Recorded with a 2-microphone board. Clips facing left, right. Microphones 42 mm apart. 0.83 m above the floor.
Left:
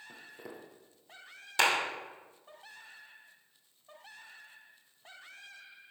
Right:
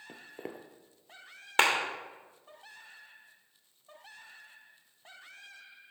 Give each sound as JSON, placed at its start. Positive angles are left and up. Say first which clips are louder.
{"t": 0.1, "sound": "footsteps", "louder": "right 6 dB", "side_deg": -45, "distance_m": 1.1}
{"t": 1.6, "sound": "a clap", "louder": "right 2 dB", "side_deg": -45, "distance_m": 2.5}